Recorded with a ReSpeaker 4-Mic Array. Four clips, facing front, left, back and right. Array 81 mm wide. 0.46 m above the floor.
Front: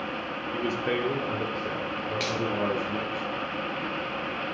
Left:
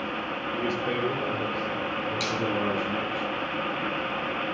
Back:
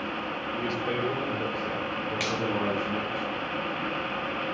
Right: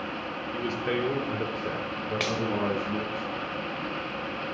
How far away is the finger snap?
About 1.4 m.